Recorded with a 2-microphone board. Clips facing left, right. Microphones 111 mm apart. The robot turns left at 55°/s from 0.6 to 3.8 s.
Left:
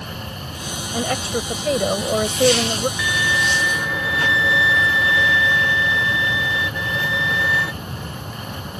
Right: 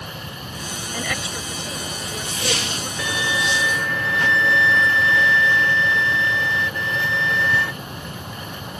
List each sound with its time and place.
0.9 s a woman speaking: 160° left; by 2.9 s 50° left
3.0 s a violin: 140° right; by 7.7 s 175° left